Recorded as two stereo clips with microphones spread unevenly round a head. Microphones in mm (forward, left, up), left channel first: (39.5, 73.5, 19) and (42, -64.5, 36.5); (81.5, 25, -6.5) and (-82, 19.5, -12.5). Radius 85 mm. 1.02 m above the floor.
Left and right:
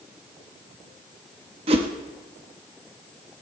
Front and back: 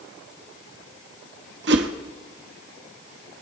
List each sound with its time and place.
1.7 s a whoosh: 145° right, 1.1 m